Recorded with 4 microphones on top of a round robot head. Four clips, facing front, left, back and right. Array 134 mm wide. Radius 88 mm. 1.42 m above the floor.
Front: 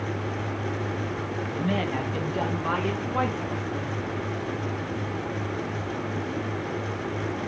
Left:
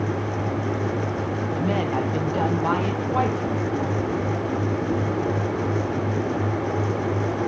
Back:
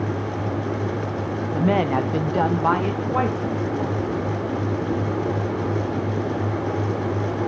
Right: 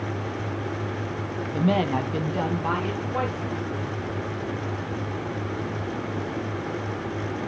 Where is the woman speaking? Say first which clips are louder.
Right 2 dB, back 8 dB; 155° right, 0.8 m; by 4.0 s 155° left, 2 m.